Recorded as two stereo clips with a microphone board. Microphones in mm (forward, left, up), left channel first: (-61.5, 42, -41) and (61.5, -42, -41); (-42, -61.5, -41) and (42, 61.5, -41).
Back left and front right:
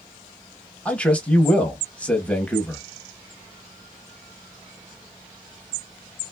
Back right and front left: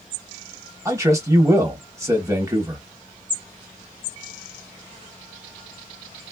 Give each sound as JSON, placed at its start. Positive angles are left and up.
{"t": 0.8, "sound": "a man speaking", "azimuth_deg": 75, "distance_m": 1.0}